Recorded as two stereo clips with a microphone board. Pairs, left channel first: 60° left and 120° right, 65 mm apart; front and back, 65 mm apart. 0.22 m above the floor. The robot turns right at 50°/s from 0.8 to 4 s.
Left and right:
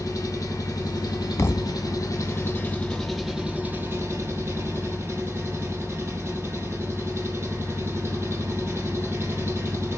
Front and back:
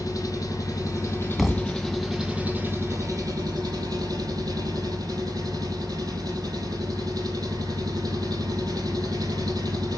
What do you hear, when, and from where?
0.0 s an engine running: 30° left, 3.5 m; by 10.0 s 170° right, 3.5 m
1.4 s a thud: 90° left, 0.8 m; by 1.8 s 115° left, 0.8 m